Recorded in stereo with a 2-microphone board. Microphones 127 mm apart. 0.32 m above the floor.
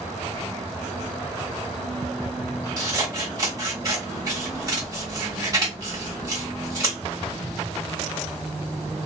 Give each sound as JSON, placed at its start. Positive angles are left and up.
{"t": 2.8, "sound": "scissors", "side_deg": -30, "distance_m": 1.3}